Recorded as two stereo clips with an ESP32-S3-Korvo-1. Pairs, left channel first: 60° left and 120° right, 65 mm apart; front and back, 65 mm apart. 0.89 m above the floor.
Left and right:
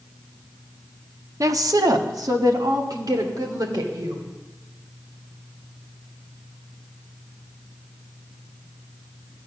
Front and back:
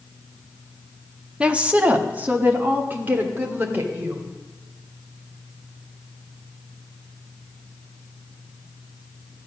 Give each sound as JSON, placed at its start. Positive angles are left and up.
{"t": 1.4, "sound": "a woman speaking", "azimuth_deg": -105, "distance_m": 0.9}